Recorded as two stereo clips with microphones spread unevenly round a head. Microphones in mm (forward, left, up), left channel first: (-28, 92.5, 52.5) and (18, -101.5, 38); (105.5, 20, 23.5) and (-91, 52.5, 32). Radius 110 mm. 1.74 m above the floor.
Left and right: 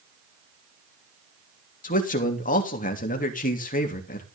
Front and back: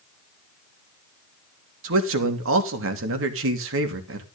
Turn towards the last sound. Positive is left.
turn(degrees=155)